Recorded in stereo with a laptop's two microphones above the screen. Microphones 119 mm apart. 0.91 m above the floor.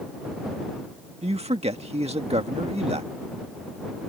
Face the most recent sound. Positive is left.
turn(degrees=-60)  # may be behind; listen again after turning